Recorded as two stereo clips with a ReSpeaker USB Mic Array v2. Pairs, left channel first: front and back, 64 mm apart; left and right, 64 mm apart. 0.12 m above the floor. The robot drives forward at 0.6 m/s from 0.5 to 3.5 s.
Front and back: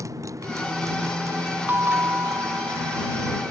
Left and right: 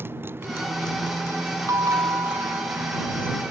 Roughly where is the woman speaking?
No woman speaking in this recording.